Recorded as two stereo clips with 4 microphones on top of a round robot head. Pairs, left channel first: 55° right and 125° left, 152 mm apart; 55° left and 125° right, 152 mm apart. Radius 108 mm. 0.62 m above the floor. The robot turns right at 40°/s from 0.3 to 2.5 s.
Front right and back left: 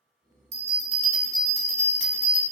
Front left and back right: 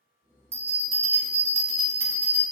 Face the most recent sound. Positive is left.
turn(degrees=-120)